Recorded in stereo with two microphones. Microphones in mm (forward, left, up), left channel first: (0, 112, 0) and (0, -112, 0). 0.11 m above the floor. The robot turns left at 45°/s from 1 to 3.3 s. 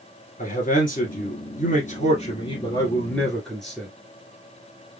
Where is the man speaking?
105° left, 1.5 m; by 3.9 s 5° left, 1.5 m.